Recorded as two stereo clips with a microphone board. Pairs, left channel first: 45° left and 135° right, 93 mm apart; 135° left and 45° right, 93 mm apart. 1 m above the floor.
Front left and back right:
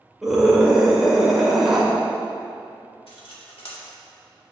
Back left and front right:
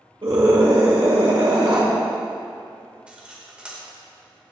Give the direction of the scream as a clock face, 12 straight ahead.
2 o'clock.